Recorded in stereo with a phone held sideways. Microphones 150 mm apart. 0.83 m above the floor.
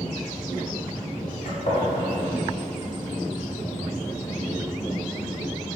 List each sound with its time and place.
1.4 s a gunshot: 65° left (ahead or behind), 1.7 m